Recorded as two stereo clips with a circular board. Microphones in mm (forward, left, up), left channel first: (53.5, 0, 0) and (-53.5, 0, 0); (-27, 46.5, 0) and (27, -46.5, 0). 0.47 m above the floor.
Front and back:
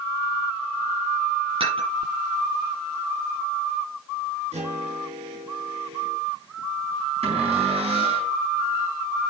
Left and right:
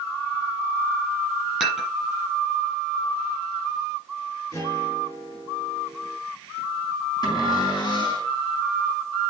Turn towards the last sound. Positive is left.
turn(degrees=170)